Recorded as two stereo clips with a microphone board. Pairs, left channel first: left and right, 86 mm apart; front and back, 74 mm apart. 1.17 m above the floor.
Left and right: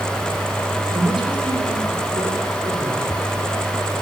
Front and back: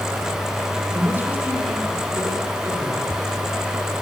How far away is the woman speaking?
About 5 m.